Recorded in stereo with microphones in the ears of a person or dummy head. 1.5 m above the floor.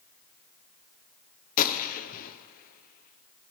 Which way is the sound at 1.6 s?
50° left (ahead or behind).